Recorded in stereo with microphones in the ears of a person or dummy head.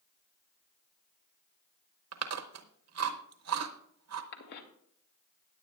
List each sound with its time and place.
2.1 s chewing: 80° right, 0.8 m
4.3 s a cough: 60° left (ahead or behind), 2 m